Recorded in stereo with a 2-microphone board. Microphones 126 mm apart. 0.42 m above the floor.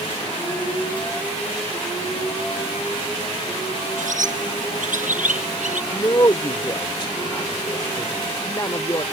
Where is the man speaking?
30° left (ahead or behind).